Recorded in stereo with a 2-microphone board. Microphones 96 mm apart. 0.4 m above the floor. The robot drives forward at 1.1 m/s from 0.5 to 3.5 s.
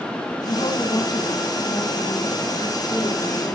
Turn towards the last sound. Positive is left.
turn(degrees=30)  # may be behind; listen again after turning